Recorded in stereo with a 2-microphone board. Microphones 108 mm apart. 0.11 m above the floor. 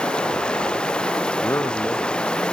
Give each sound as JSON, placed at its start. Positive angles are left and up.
{"t": 0.0, "sound": "running water", "side_deg": 10}
{"t": 1.4, "sound": "a man speaking", "side_deg": 25}